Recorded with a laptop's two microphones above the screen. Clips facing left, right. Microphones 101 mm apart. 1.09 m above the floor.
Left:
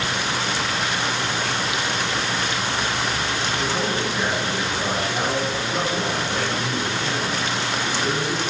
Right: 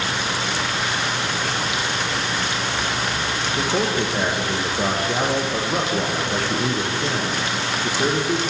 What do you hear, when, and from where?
3.6 s a man speaking: 45° right (ahead or behind), 1.0 m